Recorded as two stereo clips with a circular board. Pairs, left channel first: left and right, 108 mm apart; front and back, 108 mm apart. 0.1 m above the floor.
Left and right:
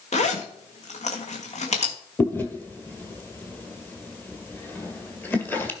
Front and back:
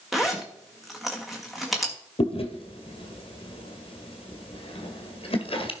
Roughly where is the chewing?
Ahead.